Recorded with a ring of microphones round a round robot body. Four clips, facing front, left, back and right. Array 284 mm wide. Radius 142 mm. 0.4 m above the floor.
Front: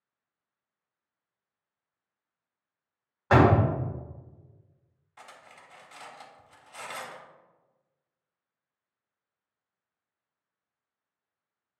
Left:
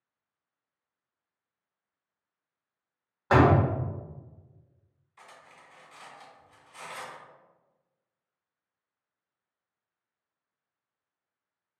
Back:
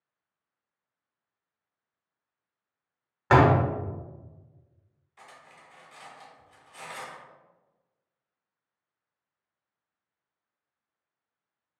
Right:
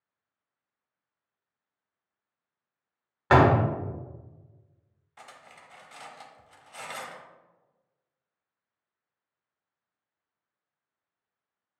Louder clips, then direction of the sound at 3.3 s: Right 1 dB, back 1 dB; 130° right.